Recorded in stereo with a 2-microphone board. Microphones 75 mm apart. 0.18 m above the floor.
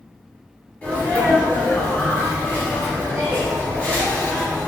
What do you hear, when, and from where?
0.8 s a sneeze: 20° left (ahead or behind), 1.5 m